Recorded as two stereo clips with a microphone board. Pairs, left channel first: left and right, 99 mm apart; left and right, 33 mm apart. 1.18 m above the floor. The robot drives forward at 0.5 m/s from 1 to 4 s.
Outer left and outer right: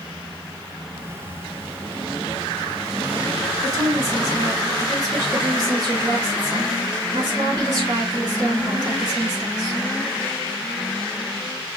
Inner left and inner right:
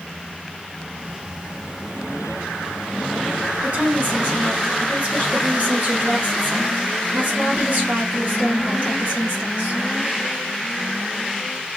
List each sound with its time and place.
3.6 s a woman speaking: 40° right (ahead or behind), 4.5 m